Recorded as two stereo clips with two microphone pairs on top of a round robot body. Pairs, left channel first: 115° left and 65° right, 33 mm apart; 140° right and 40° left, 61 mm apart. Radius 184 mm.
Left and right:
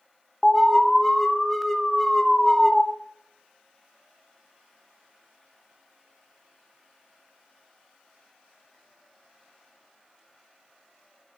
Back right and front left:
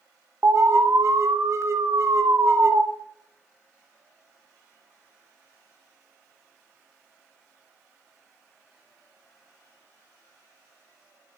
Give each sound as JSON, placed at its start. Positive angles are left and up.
{"t": 0.4, "sound": "an alarm", "azimuth_deg": 35, "distance_m": 2.5}